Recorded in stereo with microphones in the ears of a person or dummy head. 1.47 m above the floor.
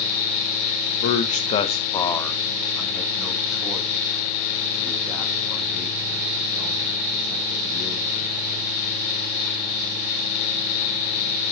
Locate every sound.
1.0 s a man speaking: 50° left (ahead or behind), 0.8 m; by 8.9 s 20° right (ahead or behind), 4 m